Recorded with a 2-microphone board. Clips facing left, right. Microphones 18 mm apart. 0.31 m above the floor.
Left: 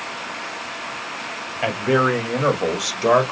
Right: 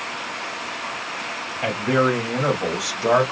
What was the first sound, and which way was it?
A man speaking, 35° left (ahead or behind).